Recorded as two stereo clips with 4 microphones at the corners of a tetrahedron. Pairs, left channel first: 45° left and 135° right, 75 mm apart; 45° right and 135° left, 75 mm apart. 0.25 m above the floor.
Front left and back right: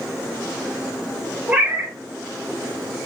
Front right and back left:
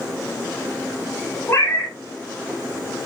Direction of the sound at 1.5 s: 75° right.